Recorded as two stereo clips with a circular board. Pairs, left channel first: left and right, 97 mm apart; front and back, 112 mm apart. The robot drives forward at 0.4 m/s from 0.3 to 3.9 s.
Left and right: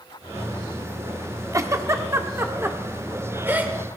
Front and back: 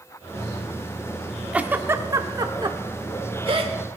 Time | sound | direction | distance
1.5 | a giggle | 110° right | 0.7 m